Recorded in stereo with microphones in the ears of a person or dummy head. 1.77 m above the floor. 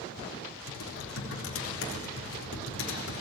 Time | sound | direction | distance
0.7 | typing on a keyboard | 70° left (ahead or behind) | 3.5 m